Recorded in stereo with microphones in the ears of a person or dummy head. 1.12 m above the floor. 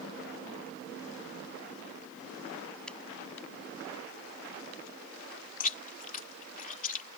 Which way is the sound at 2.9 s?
5° left (ahead or behind).